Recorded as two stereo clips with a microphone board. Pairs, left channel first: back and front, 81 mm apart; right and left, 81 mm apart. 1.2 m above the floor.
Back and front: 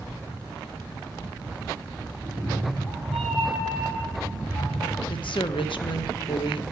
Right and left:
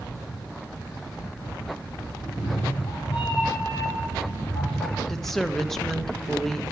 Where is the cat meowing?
95° right, 4 m.